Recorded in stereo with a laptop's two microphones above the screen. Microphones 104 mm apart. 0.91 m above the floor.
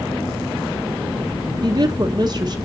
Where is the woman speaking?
45° right (ahead or behind), 0.8 m.